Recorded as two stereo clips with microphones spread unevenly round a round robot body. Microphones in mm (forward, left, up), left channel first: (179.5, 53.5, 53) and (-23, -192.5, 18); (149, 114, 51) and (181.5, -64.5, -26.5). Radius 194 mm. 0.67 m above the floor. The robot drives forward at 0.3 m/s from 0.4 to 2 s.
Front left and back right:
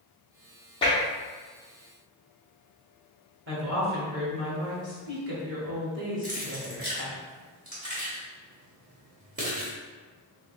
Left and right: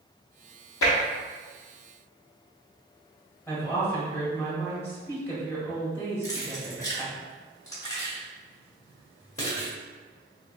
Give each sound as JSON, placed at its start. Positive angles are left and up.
{"t": 0.8, "sound": "tapping", "azimuth_deg": 130, "distance_m": 0.5}
{"t": 3.5, "sound": "a woman speaking", "azimuth_deg": -160, "distance_m": 1.6}
{"t": 6.2, "sound": "keys jangling", "azimuth_deg": 175, "distance_m": 0.8}